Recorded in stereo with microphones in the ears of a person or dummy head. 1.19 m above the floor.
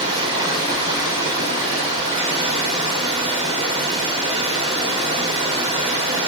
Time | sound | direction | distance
0.0 | running water | 25° right (ahead or behind) | 1.3 m